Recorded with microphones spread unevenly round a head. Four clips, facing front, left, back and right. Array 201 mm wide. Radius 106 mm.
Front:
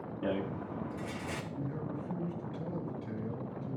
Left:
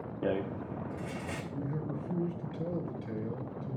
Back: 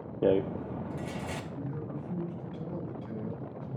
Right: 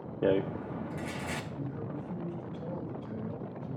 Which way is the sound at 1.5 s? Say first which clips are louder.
Left 2 dB, even; 90° left.